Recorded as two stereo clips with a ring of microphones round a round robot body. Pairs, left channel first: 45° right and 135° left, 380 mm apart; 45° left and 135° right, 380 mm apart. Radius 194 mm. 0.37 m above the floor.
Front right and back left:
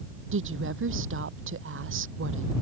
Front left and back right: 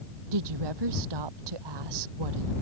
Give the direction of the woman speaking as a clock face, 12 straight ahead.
5 o'clock.